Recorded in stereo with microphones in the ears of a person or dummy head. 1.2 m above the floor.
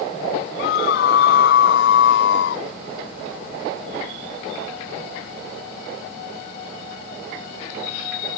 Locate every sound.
0.6 s a scream: 70° left (ahead or behind); by 2.6 s 75° left (ahead or behind)